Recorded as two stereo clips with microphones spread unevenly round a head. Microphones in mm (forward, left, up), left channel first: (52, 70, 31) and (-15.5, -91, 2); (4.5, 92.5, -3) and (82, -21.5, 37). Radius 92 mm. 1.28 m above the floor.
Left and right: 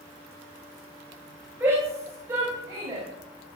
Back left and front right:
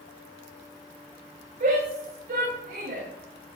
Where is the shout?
35° right, 6 m; by 3.0 s 45° right, 6 m.